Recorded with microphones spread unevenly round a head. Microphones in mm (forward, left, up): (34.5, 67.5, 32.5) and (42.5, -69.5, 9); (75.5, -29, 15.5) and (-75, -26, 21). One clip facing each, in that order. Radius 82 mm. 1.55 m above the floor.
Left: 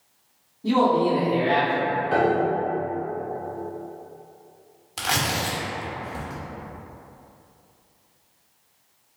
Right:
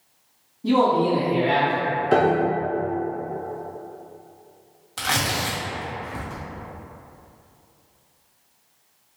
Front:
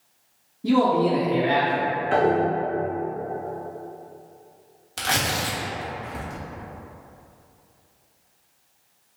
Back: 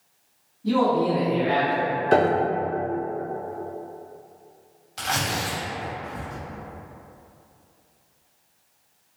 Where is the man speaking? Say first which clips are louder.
Right 1 dB, front 2 dB; 10° left, 1.3 m; by 1.9 s 15° right, 1.9 m.